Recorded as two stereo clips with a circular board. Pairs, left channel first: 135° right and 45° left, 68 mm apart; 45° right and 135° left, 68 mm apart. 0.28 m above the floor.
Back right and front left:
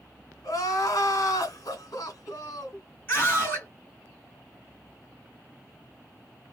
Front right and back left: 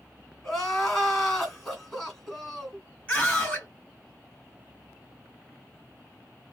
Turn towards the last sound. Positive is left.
turn(degrees=-100)